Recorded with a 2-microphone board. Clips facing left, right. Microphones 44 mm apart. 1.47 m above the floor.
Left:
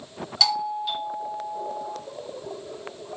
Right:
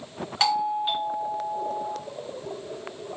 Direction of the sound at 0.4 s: 35° right (ahead or behind).